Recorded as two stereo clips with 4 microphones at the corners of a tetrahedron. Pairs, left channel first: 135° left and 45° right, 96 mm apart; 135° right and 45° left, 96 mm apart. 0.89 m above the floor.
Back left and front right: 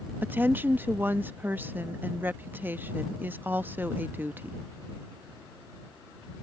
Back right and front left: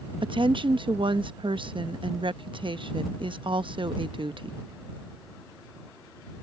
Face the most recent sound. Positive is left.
turn(degrees=25)